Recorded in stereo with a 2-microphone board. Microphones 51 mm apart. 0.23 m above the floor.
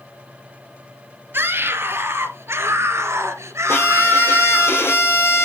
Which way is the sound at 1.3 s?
45° right (ahead or behind).